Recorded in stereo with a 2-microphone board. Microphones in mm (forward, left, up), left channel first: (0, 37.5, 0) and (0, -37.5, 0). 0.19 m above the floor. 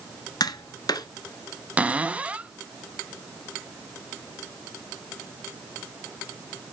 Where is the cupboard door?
20° right (ahead or behind), 0.6 m.